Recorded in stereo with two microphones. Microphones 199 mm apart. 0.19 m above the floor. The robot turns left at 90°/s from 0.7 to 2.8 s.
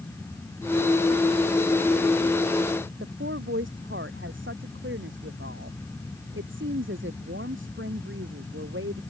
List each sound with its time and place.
3.0 s a woman speaking: 75° right (ahead or behind)